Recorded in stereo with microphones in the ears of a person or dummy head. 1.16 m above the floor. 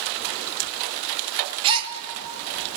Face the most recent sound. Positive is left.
turn(degrees=-25)  # may be behind; listen again after turning